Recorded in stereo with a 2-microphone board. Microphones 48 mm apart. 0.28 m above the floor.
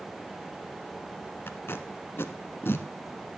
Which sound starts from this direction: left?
Tape being pulled, at 1.5 s.